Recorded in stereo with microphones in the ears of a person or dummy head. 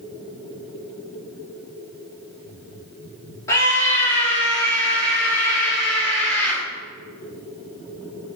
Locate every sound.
3.5 s a scream: 5° left (ahead or behind), 2 m